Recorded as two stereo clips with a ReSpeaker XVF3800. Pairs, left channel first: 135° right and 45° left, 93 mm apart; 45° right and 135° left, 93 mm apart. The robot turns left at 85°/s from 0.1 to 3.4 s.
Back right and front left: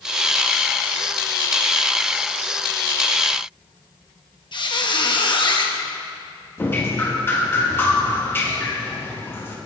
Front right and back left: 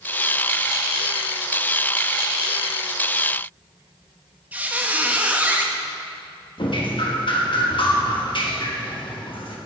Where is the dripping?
70° right, 1.5 m.